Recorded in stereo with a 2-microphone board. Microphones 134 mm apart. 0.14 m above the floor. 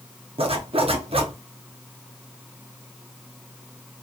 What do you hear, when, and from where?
0.4 s a zipper: 45° right (ahead or behind), 0.6 m